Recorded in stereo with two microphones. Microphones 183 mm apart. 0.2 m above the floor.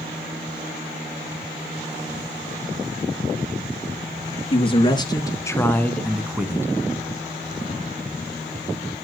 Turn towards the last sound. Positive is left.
turn(degrees=-15)  # may be behind; listen again after turning